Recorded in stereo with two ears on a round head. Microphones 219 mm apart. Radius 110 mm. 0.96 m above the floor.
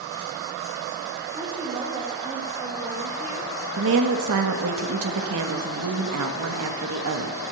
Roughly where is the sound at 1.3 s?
Right.